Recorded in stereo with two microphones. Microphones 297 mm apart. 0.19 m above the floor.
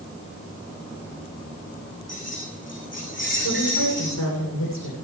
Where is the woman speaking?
70° left (ahead or behind), 10 m.